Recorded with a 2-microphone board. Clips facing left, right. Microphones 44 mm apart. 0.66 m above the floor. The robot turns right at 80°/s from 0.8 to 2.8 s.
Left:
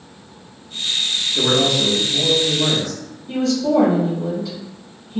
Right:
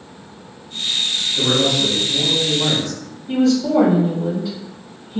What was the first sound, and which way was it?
A man speaking, 125° left.